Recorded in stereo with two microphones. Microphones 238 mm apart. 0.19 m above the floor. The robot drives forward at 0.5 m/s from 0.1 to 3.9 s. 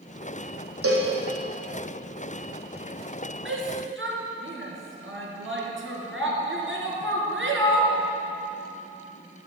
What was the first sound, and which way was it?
A cowbell, 80° right.